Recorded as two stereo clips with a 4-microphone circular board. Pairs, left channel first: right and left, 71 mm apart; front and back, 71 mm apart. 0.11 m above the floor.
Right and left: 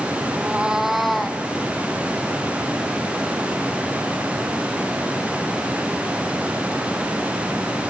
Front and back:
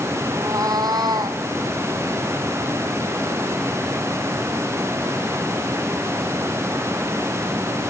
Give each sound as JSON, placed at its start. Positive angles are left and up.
{"t": 0.3, "sound": "a cat meowing", "azimuth_deg": 150, "distance_m": 1.3}